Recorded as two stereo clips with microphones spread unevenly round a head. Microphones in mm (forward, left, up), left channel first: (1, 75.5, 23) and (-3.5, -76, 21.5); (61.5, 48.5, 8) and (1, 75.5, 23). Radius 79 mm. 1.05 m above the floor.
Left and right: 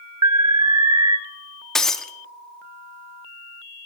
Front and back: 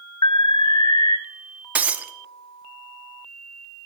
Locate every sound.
0.2 s an alarm: 25° right, 0.6 m
1.8 s breaking glass: 170° left, 0.6 m